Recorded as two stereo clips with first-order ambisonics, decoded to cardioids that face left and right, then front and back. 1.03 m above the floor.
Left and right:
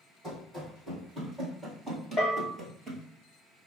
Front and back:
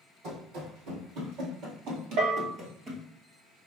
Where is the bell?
170° left, 1.3 m.